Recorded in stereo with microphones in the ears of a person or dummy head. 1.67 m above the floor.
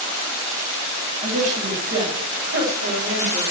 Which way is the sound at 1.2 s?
40° right (ahead or behind).